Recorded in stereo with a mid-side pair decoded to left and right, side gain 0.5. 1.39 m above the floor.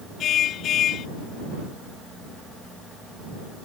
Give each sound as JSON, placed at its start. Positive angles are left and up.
{"t": 0.2, "sound": "a car horn", "azimuth_deg": 60}